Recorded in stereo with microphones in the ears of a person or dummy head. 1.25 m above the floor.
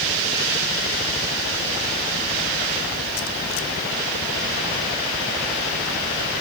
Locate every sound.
Only background noise.